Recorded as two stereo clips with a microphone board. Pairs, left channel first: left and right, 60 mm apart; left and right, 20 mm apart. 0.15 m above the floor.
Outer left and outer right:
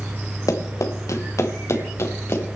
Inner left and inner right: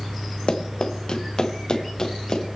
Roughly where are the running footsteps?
Left.